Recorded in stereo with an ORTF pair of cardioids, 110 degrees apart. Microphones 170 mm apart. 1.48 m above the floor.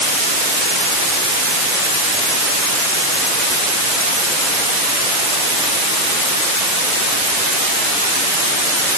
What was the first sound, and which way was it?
Only background noise.